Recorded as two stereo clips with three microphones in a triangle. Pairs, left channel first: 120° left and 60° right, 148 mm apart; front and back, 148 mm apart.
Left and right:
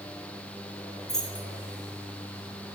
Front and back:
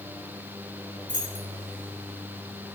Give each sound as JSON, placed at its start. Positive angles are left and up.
{"t": 1.1, "sound": "keys jangling", "azimuth_deg": -155, "distance_m": 2.5}